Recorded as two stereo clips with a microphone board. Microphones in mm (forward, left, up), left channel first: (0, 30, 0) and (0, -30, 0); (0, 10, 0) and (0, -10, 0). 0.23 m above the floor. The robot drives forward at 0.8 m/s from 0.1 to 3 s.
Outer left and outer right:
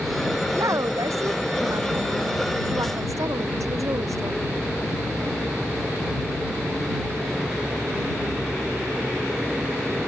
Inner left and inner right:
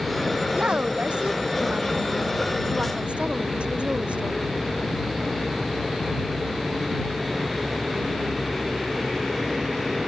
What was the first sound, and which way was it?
A woman speaking, 65° right (ahead or behind).